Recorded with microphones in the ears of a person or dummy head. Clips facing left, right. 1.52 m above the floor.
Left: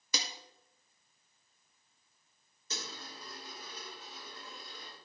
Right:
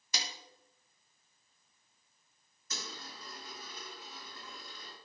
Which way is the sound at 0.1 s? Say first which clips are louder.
Left 2 dB; 75° left (ahead or behind).